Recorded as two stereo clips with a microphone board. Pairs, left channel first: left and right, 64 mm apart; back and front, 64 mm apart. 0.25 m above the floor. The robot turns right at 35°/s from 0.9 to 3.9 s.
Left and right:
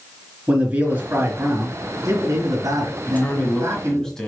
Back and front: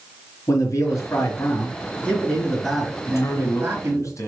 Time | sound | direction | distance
0.5 | a man speaking | 150° right | 3.5 m
3.1 | a man speaking | 140° left | 1.8 m